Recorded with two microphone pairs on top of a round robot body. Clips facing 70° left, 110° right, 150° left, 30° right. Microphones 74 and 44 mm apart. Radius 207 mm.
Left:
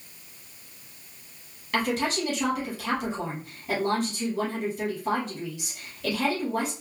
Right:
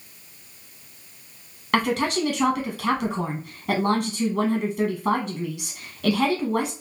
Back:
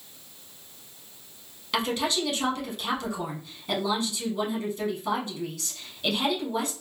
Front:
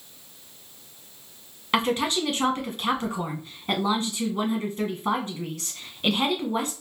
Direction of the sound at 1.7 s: 95° right.